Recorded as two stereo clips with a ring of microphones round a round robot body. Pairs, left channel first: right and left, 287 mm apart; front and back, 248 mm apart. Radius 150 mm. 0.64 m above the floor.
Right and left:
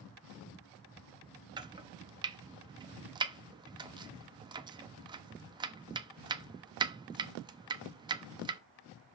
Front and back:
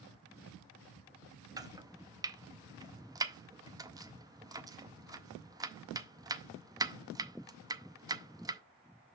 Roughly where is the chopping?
Behind left.